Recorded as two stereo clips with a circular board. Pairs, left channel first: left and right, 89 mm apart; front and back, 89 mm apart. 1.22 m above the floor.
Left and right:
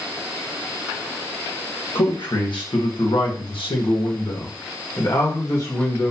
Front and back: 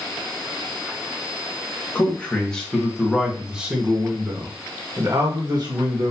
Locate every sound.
1.9 s a man speaking: 70° left, 1.7 m; by 6.1 s 150° left, 1.6 m